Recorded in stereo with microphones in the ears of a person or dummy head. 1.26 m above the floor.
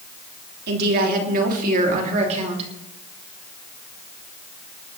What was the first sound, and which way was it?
A woman speaking, 55° right (ahead or behind).